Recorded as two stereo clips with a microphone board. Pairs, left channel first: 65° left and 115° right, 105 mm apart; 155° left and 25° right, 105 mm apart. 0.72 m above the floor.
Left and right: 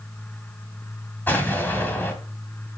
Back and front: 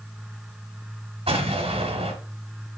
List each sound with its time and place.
1.3 s an explosion: 5° right, 1.5 m